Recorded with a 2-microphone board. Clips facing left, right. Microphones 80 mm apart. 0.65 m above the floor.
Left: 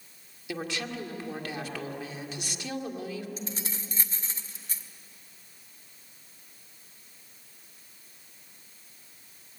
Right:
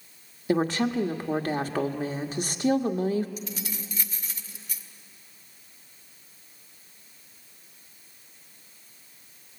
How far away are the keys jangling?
About 1.1 m.